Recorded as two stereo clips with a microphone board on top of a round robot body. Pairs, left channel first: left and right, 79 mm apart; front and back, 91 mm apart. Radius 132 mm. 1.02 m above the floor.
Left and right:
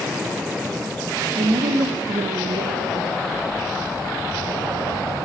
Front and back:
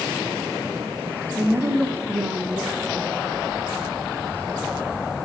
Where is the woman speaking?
110° right, 2.5 m.